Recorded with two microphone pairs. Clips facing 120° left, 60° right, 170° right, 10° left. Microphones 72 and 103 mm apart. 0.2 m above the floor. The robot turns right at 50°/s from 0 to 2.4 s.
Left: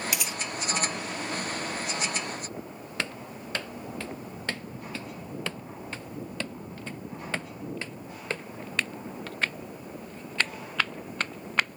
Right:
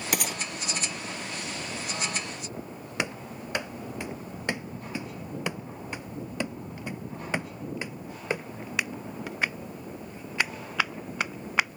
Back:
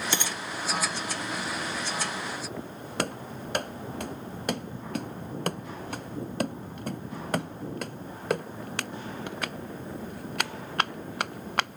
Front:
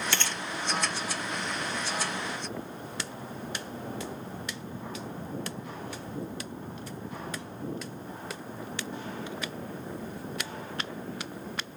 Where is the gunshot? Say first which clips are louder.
Right 3 dB, back 1 dB; 95° right; by 0.4 s 80° right.